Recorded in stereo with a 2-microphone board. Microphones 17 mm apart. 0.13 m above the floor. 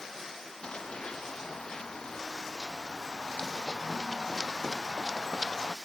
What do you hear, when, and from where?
0.6 s running footsteps: 65° left (ahead or behind); by 5.8 s 15° left (ahead or behind)